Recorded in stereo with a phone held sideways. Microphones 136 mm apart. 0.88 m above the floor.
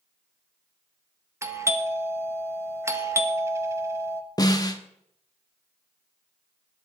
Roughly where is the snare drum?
Left.